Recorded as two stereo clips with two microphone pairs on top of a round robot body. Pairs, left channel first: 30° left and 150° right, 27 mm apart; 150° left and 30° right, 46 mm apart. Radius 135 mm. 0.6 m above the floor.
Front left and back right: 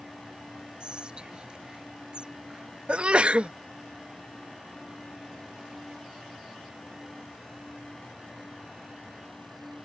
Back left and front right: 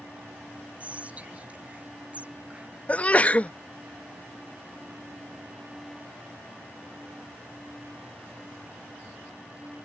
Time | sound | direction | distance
0.8 | whispering | 90° right | ?
2.9 | a sneeze | straight behind | ?